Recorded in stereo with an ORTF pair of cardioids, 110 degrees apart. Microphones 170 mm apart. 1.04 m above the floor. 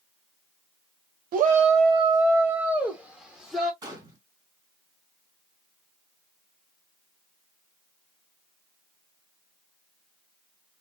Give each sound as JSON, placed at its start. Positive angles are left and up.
{"t": 1.3, "sound": "a shout", "azimuth_deg": -60, "distance_m": 0.6}
{"t": 3.8, "sound": "a gunshot", "azimuth_deg": -25, "distance_m": 1.7}